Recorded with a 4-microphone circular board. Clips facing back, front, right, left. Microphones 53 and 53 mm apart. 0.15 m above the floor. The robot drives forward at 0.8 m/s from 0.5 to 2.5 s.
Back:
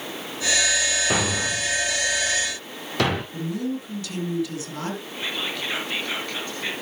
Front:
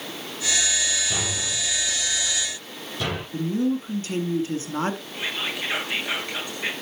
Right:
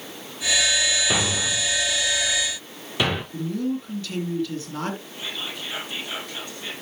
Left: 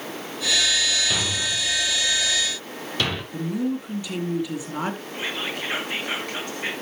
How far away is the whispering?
About 2.5 m.